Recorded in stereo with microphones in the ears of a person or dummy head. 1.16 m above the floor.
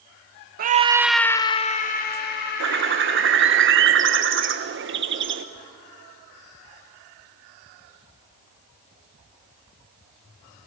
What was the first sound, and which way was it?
A scream, 45° right (ahead or behind).